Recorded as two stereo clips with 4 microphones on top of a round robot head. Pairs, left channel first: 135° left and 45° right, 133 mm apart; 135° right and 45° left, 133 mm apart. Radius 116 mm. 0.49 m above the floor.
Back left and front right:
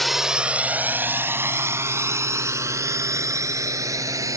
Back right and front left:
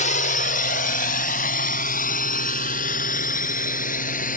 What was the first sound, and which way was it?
A drone, 135° right.